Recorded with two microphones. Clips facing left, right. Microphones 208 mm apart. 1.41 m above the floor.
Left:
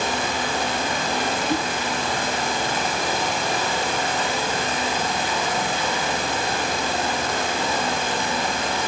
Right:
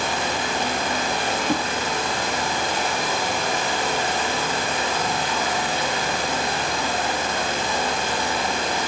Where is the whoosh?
40° right (ahead or behind), 2 m.